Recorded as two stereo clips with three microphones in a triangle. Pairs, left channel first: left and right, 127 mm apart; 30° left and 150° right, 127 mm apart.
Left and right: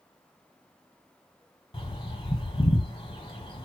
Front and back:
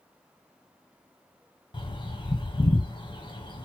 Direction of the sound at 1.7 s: 60° left.